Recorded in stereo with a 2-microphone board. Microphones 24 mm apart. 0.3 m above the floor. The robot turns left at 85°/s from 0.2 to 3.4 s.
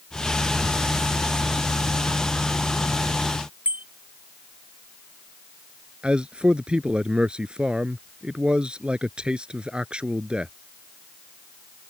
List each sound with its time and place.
3.6 s a bicycle bell: 85° right
6.0 s a man speaking: 45° right (ahead or behind)